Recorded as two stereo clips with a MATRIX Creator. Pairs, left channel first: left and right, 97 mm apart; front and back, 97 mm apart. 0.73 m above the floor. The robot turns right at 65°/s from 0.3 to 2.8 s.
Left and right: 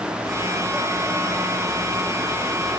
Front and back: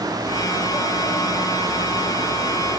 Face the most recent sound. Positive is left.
No sound to turn to.